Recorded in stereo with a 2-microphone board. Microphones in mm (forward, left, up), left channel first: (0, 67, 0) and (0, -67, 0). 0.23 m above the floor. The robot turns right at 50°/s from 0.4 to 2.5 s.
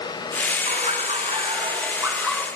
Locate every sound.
0.7 s laughter: 90° right, 2 m; by 2.5 s straight ahead, 2 m